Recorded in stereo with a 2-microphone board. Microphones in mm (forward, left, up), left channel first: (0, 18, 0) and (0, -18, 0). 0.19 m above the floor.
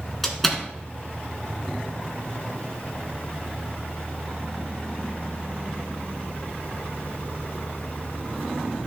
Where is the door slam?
5° left (ahead or behind), 1.7 m.